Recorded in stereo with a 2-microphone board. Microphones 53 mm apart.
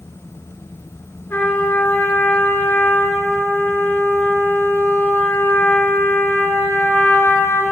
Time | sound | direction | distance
1.3 | a trumpet | 40° left (ahead or behind) | 3 m